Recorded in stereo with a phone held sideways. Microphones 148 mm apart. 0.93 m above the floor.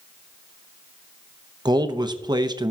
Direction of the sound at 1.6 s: 30° right (ahead or behind).